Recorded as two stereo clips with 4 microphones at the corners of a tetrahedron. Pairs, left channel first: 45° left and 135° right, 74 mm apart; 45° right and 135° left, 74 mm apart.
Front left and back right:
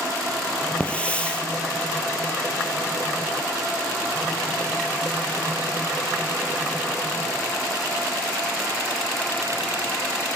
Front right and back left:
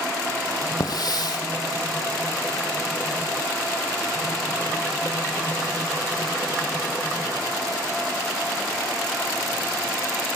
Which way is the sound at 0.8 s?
25° right.